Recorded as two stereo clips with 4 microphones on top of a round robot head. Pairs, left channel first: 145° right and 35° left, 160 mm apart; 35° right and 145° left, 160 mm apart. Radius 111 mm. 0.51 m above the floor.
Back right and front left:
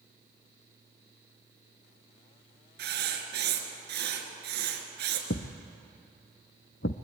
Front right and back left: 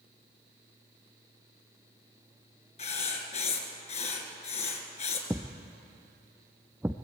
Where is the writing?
15° left, 3 m.